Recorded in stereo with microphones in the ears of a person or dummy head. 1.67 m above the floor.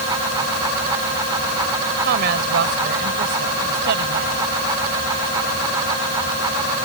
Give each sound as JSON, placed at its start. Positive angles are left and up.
{"t": 2.0, "sound": "a woman speaking", "side_deg": -60}